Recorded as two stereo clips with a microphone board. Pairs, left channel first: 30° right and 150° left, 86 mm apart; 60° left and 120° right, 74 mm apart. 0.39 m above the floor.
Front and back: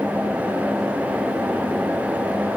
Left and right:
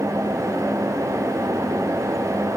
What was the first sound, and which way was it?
Only background noise.